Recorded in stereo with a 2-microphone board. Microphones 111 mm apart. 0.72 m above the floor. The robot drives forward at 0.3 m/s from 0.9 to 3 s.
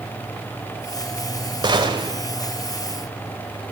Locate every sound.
1.6 s a gunshot: 40° right (ahead or behind), 3 m